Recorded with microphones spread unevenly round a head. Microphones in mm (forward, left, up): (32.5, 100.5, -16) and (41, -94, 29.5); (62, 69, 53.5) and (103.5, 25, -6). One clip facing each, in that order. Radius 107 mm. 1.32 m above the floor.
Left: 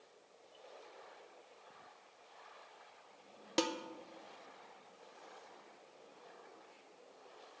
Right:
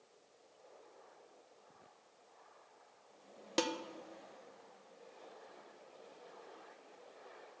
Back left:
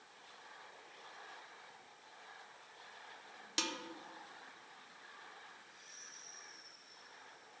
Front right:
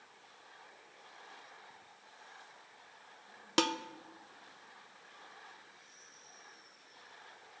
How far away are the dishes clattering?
About 0.5 m.